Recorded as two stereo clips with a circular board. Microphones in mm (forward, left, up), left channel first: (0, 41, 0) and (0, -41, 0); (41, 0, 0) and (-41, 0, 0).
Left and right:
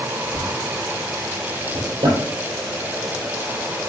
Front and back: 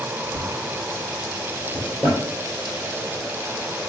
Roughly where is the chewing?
I don't hear chewing.